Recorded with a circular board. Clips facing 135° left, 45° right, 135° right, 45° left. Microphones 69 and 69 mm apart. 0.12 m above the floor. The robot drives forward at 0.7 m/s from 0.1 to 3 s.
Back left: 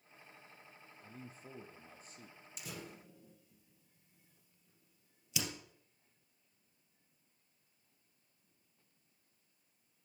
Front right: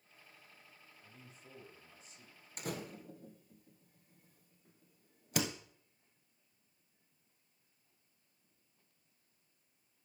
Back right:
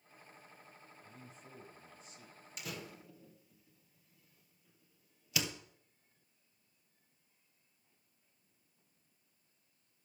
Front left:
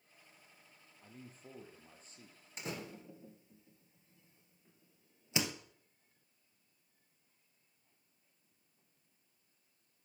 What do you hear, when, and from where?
1.0 s a man speaking: 85° left, 4 m; by 2.5 s 100° left, 4 m
2.6 s a door slam: 10° right, 2 m; by 5.5 s 15° right, 2.0 m